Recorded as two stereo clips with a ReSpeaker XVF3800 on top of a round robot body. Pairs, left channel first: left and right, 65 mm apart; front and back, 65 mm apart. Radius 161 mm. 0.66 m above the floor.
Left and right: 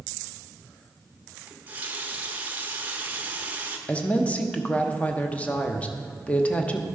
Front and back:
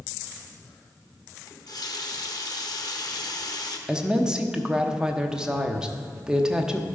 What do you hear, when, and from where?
1.5 s a running tap: 25° right, 1.1 m
3.9 s a woman speaking: 115° left, 1.1 m